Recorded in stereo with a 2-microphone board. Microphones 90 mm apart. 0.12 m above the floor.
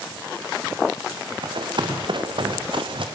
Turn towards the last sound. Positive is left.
turn(degrees=-65)  # may be behind; listen again after turning